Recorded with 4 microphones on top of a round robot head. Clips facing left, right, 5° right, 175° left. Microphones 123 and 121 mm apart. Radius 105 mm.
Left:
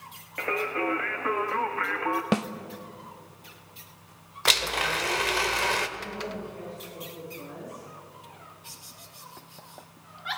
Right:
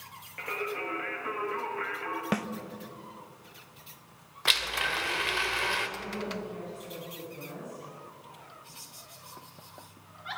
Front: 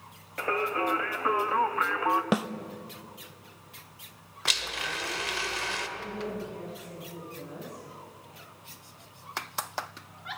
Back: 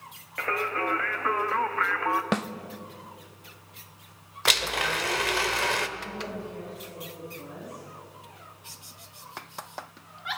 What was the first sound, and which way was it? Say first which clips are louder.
Singing: left 6 dB, front 1 dB; 70° left.